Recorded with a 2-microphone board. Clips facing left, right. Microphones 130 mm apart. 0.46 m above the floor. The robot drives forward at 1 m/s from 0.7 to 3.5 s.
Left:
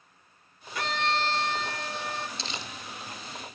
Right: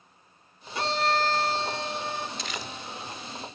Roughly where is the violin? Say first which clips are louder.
Right 3 dB; right.